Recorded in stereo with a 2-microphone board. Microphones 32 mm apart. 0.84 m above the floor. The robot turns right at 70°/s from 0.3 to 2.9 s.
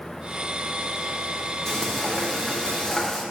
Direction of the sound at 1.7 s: 20° left (ahead or behind).